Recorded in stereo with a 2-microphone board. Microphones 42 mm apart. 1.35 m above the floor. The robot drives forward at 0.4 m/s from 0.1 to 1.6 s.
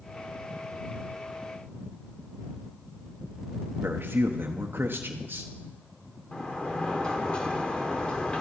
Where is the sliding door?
25° left (ahead or behind), 1.5 m.